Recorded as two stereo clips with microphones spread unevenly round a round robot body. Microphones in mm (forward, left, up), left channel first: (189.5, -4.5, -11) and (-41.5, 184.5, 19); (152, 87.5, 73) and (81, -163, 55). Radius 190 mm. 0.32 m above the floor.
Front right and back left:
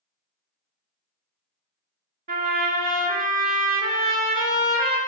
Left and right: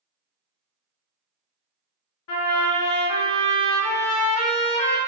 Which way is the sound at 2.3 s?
75° left.